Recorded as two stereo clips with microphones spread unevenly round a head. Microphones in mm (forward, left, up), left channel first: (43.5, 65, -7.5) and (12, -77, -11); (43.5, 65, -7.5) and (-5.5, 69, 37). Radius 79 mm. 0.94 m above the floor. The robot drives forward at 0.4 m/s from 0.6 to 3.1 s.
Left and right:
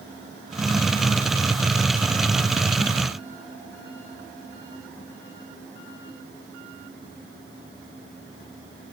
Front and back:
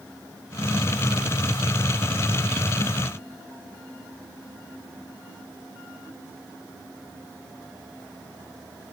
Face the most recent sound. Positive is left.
No sound to turn to.